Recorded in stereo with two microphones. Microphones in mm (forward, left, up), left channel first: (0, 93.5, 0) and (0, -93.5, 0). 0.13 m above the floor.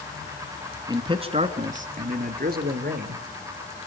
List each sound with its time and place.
0.9 s a man speaking: 20° right (ahead or behind), 1.3 m; by 3.8 s 65° right (ahead or behind), 3 m